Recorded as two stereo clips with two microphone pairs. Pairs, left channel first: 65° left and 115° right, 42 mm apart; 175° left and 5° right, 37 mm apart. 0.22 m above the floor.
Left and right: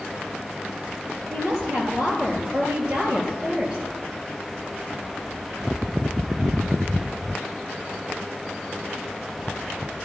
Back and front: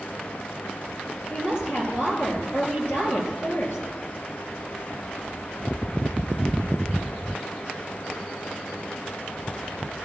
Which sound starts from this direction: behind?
A woman speaking, at 1.3 s.